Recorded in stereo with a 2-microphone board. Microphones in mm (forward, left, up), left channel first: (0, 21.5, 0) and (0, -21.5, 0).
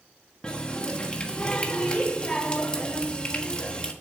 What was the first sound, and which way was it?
A running tap, 20° left (ahead or behind).